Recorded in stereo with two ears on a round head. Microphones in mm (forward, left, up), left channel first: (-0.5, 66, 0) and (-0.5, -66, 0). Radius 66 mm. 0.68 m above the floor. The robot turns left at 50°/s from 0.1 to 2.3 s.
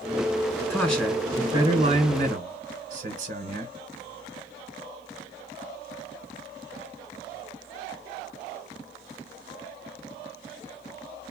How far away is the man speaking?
About 2.5 m.